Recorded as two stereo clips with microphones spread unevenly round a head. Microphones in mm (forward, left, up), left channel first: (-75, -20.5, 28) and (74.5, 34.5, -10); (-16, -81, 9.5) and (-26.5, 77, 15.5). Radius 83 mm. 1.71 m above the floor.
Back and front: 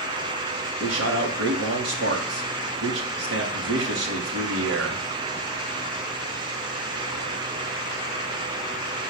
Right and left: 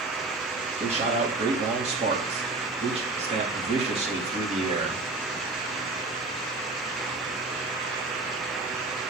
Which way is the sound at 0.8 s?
35° left.